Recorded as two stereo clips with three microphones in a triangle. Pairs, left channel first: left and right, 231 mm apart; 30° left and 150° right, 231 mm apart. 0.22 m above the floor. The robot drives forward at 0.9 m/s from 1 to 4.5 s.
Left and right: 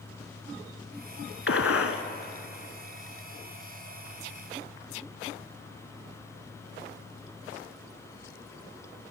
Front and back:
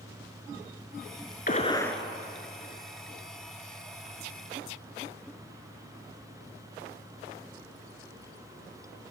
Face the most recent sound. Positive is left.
turn(degrees=165)